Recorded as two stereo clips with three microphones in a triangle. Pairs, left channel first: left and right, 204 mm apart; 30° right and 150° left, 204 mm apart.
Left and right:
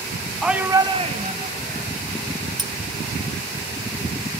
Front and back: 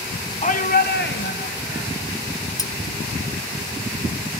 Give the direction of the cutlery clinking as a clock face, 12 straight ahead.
2 o'clock.